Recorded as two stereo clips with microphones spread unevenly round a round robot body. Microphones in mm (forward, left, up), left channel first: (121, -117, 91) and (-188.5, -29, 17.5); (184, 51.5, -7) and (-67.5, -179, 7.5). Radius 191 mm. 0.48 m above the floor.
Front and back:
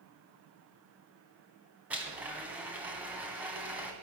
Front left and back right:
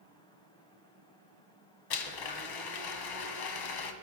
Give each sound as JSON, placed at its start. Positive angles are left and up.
{"t": 1.9, "sound": "a blender", "azimuth_deg": 80, "distance_m": 1.6}